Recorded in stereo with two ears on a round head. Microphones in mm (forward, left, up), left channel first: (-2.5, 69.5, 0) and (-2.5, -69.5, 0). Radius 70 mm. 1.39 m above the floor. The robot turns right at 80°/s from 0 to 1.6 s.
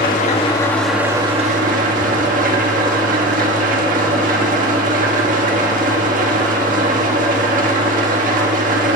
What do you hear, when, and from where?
0.0 s an engine running: 110° left, 1.6 m; by 9.0 s 120° right, 1.6 m